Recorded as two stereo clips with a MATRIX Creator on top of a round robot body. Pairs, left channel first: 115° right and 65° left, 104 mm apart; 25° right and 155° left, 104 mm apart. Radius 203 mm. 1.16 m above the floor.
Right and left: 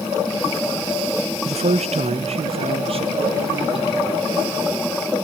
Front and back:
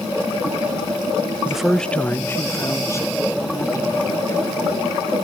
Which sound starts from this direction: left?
A man speaking, at 1.4 s.